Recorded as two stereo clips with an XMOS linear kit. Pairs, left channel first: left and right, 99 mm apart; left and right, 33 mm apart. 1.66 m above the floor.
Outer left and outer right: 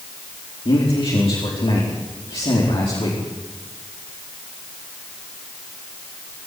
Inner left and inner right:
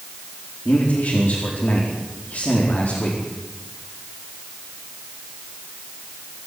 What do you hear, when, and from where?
0.7 s a man speaking: 70° left (ahead or behind), 5 m